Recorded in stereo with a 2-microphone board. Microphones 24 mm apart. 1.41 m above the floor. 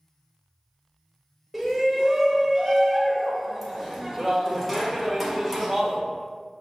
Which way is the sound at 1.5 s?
Centre (ahead or behind).